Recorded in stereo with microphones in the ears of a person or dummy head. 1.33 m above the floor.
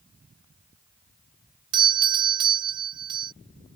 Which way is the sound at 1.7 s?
25° right (ahead or behind).